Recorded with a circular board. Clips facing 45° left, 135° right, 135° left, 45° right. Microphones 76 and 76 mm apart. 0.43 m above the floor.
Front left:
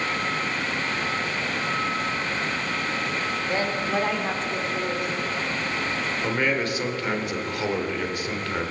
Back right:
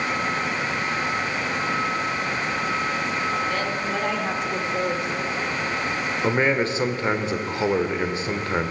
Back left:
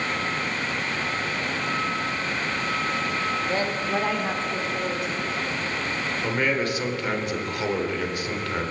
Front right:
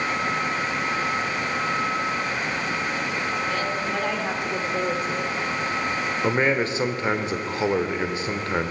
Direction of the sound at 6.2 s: 90° right.